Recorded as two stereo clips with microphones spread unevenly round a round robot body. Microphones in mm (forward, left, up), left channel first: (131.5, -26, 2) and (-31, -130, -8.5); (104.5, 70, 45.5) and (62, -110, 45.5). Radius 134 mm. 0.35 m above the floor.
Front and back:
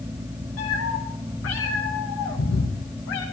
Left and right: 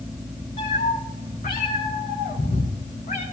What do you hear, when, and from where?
0.6 s a cat meowing: 30° left, 3.5 m; by 3.2 s 35° left, 5 m